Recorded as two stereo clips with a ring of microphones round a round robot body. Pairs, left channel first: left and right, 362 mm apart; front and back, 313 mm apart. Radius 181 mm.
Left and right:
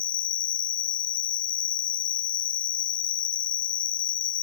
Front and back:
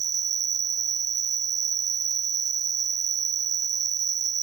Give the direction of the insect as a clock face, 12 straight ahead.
7 o'clock.